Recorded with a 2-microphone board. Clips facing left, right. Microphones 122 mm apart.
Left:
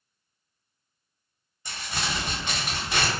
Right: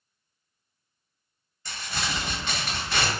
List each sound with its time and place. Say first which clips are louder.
1.6 s crumpling: even; 15° left (ahead or behind), 1.5 m